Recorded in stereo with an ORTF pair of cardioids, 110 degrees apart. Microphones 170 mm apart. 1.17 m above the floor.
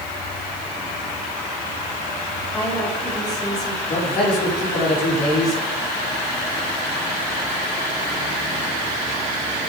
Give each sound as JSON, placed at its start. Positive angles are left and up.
{"t": 2.5, "sound": "a woman speaking", "azimuth_deg": 25, "distance_m": 5.5}
{"t": 3.9, "sound": "a man speaking", "azimuth_deg": 60, "distance_m": 4.0}